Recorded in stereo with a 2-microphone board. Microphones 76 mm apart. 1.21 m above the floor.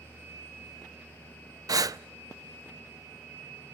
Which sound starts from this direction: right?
Breathing, at 1.7 s.